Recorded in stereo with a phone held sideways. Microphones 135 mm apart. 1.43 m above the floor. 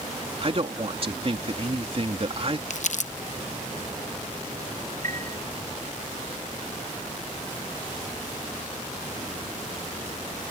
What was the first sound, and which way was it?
A man speaking, 45° right (ahead or behind).